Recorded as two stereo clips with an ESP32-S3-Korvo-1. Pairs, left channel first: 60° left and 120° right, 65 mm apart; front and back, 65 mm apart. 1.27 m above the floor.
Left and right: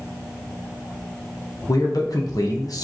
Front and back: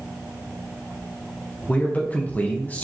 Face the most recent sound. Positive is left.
turn(degrees=65)